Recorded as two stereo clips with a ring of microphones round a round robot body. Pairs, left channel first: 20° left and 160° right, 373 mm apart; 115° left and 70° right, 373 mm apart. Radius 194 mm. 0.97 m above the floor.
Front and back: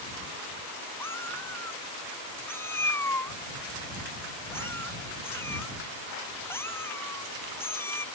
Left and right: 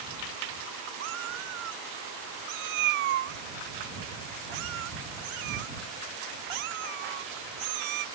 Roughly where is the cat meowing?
Ahead right.